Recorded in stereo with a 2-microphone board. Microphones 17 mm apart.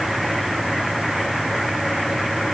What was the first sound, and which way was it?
Only background noise.